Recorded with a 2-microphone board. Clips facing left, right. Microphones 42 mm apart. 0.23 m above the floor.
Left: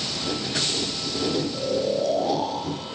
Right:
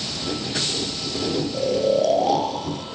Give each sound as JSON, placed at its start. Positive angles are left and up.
{"t": 1.5, "sound": "snoring", "side_deg": -75, "distance_m": 5.0}